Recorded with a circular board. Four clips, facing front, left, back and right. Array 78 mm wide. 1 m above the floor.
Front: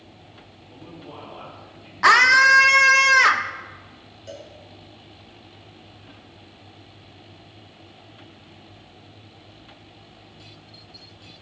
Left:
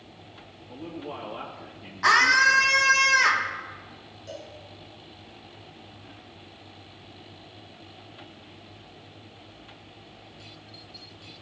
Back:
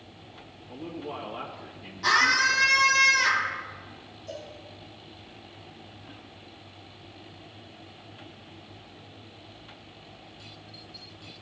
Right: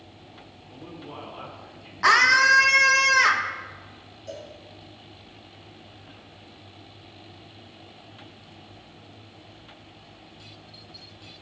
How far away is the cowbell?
About 3 m.